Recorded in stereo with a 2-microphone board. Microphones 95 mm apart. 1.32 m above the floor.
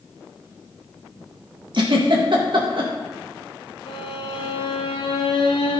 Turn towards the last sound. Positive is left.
turn(degrees=70)  # may be behind; listen again after turning